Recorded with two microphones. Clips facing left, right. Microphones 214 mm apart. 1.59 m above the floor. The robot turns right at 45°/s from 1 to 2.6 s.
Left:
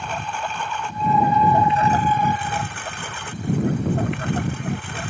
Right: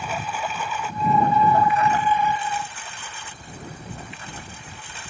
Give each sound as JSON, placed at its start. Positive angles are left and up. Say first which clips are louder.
{"t": 0.0, "sound": "a lawn mower", "louder": "even", "azimuth_deg": -5}